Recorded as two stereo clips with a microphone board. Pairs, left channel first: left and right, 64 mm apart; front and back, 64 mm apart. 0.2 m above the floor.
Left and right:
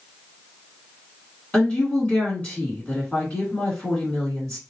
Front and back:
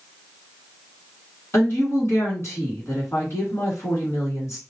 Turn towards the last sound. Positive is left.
turn(degrees=25)